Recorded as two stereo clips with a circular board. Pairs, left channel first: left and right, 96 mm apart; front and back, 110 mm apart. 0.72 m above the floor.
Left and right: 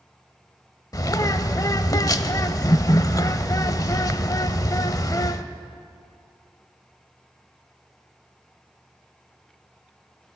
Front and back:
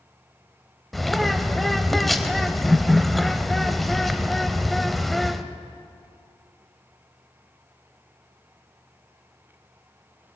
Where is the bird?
90° left, 0.6 m.